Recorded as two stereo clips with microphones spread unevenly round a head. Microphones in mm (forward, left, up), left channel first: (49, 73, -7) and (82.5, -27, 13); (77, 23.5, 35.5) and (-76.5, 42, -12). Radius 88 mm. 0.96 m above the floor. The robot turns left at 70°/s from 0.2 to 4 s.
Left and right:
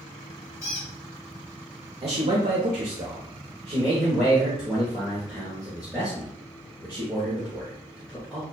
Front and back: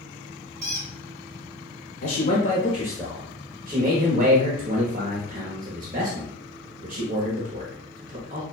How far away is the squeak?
About 1.9 m.